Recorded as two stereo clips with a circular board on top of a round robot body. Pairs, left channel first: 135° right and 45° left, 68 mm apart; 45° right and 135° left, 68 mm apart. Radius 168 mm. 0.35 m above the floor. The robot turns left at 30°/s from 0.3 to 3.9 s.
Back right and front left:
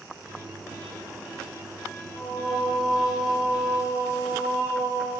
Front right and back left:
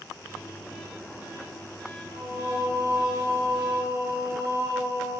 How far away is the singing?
About 3.5 m.